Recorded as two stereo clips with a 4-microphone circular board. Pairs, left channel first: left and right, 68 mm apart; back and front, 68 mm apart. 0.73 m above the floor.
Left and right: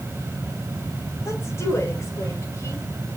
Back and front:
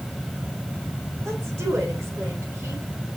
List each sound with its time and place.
1.2 s a woman speaking: 45° left, 3.5 m